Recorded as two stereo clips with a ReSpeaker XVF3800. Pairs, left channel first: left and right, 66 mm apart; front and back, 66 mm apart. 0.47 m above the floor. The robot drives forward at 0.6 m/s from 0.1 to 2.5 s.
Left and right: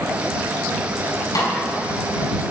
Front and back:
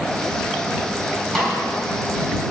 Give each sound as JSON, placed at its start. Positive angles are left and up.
{"t": 1.4, "sound": "a snare drum", "azimuth_deg": 85, "distance_m": 3.0}